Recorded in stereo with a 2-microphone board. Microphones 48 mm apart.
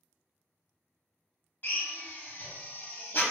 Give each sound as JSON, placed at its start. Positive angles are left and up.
{"t": 1.6, "sound": "a drill", "side_deg": 40, "distance_m": 0.6}